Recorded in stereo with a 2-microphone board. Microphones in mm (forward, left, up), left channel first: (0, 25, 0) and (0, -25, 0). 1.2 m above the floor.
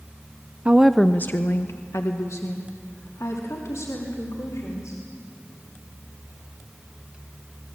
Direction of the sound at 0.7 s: 30° right (ahead or behind).